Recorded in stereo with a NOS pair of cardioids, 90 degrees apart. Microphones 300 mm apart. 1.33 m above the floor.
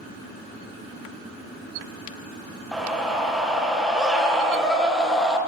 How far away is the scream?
About 0.9 m.